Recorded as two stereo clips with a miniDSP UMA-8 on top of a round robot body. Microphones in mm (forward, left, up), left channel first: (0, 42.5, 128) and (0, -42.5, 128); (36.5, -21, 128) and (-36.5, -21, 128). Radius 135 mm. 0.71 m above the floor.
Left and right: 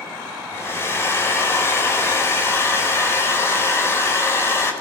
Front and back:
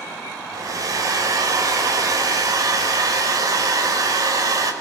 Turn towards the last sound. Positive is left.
turn(degrees=145)